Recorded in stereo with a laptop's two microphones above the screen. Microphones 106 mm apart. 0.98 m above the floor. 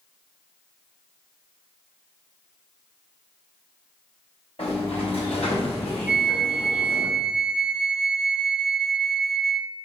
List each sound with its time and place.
4.6 s a sliding door: 70° left (ahead or behind), 5.5 m
6.1 s a flute: 5° right (ahead or behind), 0.5 m